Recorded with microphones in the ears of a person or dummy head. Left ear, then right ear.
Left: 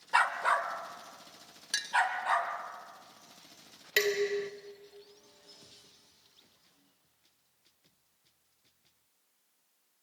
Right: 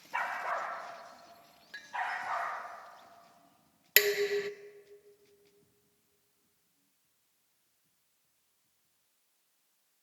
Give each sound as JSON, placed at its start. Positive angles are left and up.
{"t": 0.1, "sound": "a dog barking", "side_deg": 55, "distance_m": 1.5}
{"t": 1.7, "sound": "a clink", "side_deg": 70, "distance_m": 0.5}
{"t": 4.0, "sound": "dishes clattering", "side_deg": -30, "distance_m": 0.5}